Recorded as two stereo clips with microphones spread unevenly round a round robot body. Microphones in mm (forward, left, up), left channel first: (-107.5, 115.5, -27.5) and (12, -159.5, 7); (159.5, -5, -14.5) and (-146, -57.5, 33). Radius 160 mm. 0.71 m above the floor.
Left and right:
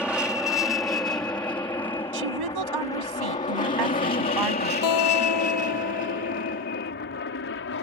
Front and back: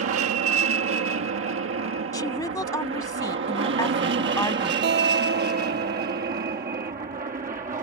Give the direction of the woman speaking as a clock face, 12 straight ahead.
2 o'clock.